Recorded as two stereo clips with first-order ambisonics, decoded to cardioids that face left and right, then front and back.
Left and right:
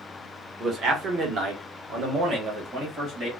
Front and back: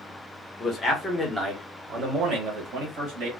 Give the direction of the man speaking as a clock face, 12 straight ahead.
2 o'clock.